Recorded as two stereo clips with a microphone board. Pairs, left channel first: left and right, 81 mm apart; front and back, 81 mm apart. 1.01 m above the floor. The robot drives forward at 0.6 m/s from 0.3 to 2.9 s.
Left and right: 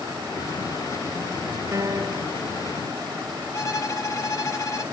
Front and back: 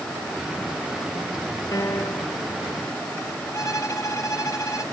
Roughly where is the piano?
Ahead right.